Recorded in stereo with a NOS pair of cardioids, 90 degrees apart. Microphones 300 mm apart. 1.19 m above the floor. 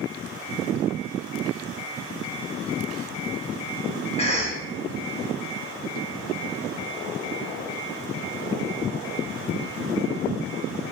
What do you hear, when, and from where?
4.2 s a cough: 20° left, 0.8 m